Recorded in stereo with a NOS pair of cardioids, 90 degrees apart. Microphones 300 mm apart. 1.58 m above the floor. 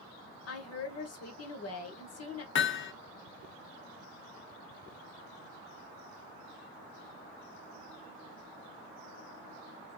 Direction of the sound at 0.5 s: 55° left.